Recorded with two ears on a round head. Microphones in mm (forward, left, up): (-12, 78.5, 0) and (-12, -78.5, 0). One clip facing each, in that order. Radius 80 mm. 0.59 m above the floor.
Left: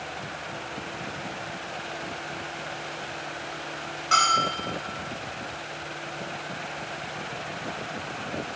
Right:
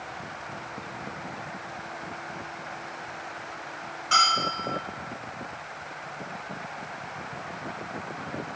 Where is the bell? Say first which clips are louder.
Left 2 dB; 5° right (ahead or behind), 1.4 m.